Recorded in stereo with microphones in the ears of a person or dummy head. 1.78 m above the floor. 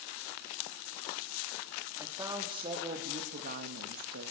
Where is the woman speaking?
15° right (ahead or behind), 4 m; by 4.3 s 75° right (ahead or behind), 2.5 m.